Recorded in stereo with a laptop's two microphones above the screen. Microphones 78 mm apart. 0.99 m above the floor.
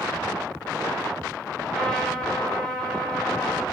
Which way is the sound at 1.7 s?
10° left (ahead or behind).